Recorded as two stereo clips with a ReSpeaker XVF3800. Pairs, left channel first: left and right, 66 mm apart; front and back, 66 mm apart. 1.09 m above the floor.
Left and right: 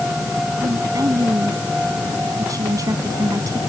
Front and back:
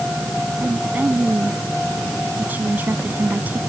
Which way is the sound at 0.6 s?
120° right.